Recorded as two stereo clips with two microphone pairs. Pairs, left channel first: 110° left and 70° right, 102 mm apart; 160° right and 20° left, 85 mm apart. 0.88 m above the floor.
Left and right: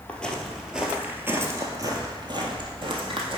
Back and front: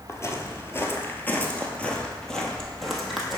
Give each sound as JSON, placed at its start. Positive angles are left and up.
{"t": 0.1, "sound": "footsteps", "azimuth_deg": 180, "distance_m": 1.0}